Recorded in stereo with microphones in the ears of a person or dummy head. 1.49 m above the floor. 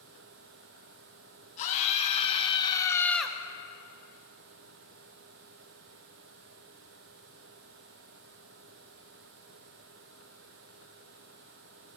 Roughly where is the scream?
Left.